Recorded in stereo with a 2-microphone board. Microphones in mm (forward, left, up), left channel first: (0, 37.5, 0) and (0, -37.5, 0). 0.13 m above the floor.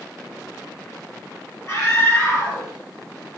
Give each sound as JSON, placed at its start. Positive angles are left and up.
{"t": 1.7, "sound": "a scream", "side_deg": 25, "distance_m": 2.5}